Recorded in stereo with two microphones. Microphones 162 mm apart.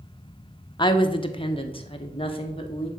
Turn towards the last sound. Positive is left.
turn(degrees=35)  # may be behind; listen again after turning